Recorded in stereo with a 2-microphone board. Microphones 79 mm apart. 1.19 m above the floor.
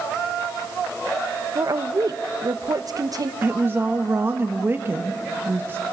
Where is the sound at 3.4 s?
30° right (ahead or behind), 1.2 m.